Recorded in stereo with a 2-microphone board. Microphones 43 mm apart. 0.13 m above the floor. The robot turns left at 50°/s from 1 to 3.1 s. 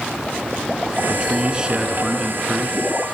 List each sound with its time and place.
1.1 s a man speaking: 25° right (ahead or behind), 1.3 m; by 2.8 s centre (ahead or behind), 1.3 m